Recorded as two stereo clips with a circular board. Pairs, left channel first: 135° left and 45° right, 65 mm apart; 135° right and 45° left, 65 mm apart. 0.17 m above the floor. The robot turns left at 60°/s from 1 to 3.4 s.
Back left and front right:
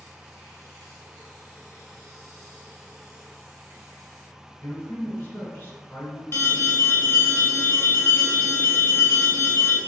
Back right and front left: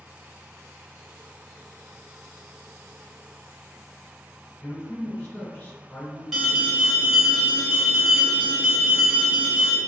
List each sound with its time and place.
4.6 s a man speaking: 175° right, 1.4 m
6.3 s an alarm: 135° left, 0.9 m